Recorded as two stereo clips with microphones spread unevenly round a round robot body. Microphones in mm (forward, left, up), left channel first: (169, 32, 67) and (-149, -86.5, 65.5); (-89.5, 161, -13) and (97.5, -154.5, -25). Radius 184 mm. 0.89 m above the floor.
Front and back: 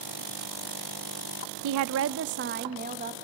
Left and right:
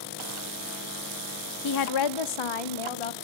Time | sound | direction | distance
1.6 | a woman speaking | 170° left | 0.6 m